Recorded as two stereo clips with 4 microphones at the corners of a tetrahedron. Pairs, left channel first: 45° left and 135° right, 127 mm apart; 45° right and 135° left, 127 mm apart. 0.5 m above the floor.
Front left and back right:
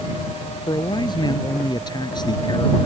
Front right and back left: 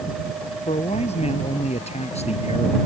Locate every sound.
0.7 s a man speaking: 10° right